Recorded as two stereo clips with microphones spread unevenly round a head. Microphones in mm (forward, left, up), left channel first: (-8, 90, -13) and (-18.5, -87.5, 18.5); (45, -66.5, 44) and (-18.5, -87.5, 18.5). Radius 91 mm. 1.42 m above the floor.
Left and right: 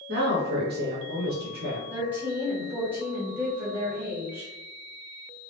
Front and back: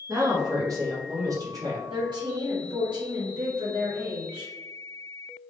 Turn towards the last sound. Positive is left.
turn(degrees=-155)